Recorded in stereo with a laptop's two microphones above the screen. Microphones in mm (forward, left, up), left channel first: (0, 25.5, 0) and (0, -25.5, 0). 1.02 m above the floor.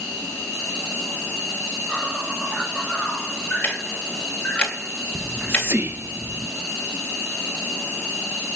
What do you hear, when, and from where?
0.0 s an insect: 5° left (ahead or behind), 8 m
3.6 s ticking: 20° left (ahead or behind), 3 m
5.2 s whispering: 50° right (ahead or behind), 0.6 m